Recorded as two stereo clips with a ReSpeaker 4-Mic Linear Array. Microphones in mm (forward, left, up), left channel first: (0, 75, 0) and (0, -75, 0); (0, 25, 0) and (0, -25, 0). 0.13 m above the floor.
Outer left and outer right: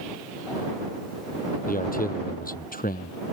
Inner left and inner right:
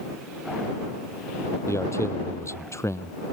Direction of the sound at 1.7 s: 70° left (ahead or behind).